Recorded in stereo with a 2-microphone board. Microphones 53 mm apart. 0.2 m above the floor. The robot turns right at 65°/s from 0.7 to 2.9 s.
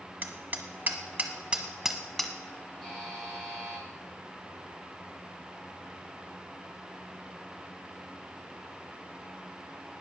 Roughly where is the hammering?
Right.